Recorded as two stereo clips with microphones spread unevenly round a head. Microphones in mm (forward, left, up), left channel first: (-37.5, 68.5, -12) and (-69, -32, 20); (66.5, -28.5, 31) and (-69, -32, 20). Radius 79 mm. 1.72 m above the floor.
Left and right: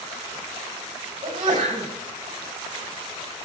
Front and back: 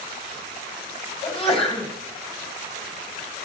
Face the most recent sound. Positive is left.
turn(degrees=-45)